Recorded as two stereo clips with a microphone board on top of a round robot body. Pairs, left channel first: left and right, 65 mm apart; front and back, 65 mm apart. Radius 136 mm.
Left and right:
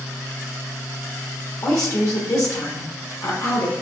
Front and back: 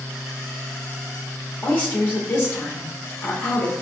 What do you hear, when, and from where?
1.6 s a woman speaking: 60° left, 1.4 m